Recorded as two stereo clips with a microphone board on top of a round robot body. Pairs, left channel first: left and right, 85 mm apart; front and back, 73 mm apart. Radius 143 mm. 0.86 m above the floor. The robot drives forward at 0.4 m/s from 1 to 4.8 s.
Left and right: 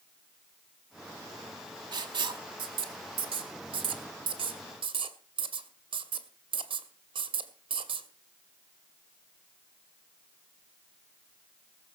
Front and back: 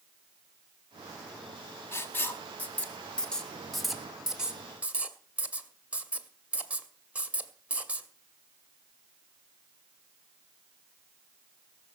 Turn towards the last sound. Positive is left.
turn(degrees=-105)